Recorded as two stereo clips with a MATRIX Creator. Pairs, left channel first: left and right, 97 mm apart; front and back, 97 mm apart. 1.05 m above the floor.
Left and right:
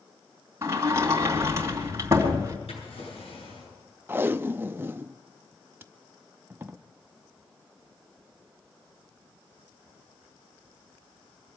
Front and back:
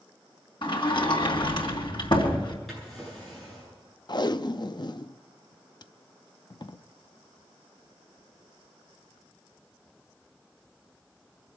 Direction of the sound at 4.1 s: 25° right.